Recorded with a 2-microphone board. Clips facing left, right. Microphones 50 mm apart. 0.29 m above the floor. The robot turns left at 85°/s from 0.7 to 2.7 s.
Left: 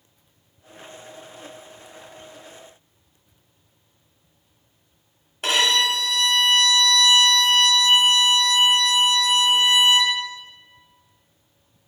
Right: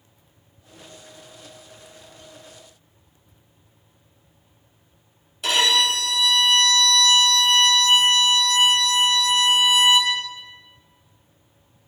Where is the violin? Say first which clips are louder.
Even; 45° left (ahead or behind), 0.8 m.